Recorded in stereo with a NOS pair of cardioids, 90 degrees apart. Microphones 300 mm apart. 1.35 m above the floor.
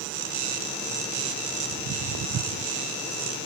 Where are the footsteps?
65° right; by 2.7 s 60° right.